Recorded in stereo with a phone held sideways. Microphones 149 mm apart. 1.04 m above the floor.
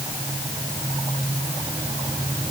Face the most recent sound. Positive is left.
No sound to turn to.